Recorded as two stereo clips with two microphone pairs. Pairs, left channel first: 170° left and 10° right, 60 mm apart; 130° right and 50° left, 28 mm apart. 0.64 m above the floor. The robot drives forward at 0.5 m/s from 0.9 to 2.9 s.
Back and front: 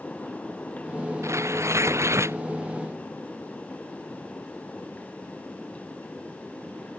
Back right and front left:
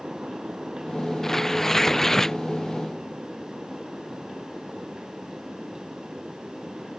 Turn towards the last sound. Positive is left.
turn(degrees=-50)